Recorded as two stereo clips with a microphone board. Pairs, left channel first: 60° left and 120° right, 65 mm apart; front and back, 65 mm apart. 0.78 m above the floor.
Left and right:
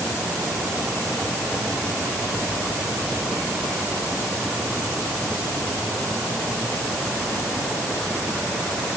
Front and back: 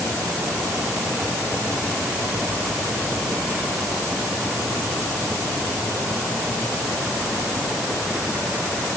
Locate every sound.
Only background noise.